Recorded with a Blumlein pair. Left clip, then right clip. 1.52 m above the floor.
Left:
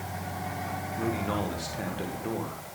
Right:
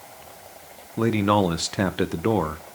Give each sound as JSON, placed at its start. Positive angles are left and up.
{"t": 1.0, "sound": "a man speaking", "azimuth_deg": -55, "distance_m": 1.1}